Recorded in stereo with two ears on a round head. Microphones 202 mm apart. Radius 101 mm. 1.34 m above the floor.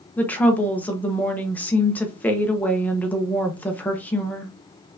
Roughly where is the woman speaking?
Centre.